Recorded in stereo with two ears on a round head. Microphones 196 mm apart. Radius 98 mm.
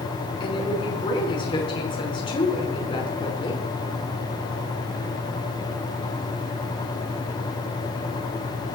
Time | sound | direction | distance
0.4 | a woman speaking | 25° left (ahead or behind) | 5.5 m